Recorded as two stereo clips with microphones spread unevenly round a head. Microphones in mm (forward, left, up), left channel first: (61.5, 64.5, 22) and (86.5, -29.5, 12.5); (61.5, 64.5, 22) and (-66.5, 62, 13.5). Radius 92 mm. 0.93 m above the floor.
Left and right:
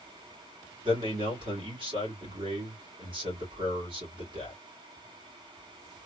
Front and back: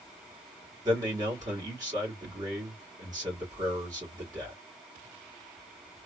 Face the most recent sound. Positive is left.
turn(degrees=-115)